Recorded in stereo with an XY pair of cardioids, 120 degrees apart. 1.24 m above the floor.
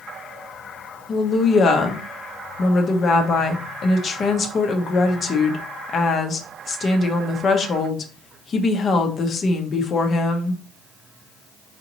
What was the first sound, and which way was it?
A woman speaking, 45° left.